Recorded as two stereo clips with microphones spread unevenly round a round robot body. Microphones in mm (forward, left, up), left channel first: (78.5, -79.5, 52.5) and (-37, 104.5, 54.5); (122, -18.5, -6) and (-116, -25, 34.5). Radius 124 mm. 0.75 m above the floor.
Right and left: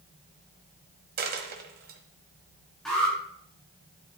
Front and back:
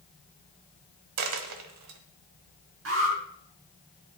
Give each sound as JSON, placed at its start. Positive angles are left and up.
{"t": 1.2, "sound": "a dropped coin", "azimuth_deg": 175, "distance_m": 1.1}
{"t": 2.9, "sound": "an alarm", "azimuth_deg": -145, "distance_m": 6.0}